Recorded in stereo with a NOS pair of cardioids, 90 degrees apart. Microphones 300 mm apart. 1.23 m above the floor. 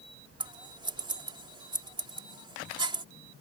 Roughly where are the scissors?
Ahead.